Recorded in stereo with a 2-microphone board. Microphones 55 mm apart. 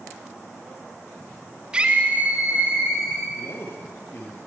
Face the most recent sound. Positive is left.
turn(degrees=45)  # may be behind; listen again after turning